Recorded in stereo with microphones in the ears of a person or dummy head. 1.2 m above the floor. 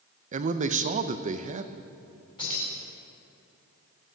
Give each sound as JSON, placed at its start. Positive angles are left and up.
{"t": 0.3, "sound": "a man speaking", "side_deg": -35, "distance_m": 0.7}
{"t": 2.4, "sound": "keys jangling", "side_deg": 25, "distance_m": 5.0}